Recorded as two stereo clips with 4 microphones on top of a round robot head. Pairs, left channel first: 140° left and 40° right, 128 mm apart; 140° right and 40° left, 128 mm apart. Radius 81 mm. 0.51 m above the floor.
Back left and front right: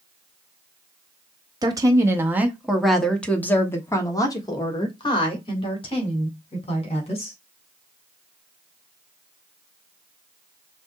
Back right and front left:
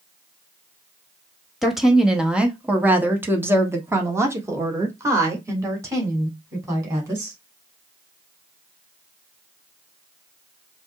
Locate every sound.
1.6 s a woman speaking: 50° right, 1.3 m; by 7.4 s 105° left, 3 m